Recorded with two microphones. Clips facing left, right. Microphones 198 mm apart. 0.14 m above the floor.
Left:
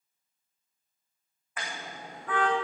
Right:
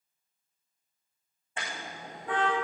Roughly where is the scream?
I don't hear a scream.